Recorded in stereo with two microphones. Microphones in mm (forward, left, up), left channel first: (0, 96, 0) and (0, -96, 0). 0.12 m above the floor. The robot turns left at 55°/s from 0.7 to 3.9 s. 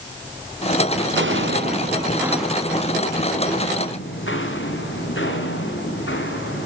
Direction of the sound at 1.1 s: 70° right (ahead or behind).